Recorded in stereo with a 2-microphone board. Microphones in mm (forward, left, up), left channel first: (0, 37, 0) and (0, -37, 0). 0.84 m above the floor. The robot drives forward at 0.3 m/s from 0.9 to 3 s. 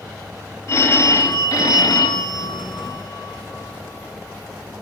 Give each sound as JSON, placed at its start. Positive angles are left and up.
{"t": 0.7, "sound": "a phone ringing", "side_deg": 40, "distance_m": 0.8}